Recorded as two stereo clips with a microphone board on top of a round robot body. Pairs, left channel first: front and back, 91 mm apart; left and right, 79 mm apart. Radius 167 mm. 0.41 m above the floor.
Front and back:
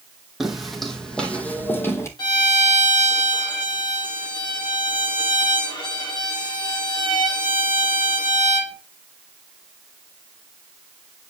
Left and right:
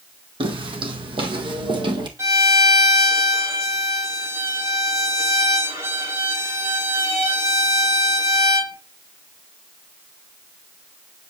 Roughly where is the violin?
Ahead right.